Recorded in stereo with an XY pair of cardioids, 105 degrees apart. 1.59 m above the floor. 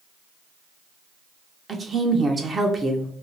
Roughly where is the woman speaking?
Ahead right.